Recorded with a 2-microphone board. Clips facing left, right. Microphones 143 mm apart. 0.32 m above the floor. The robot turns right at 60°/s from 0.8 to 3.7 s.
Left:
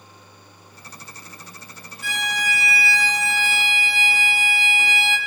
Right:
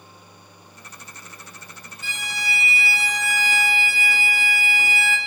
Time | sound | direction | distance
2.0 | a violin | 105° left | 1.5 m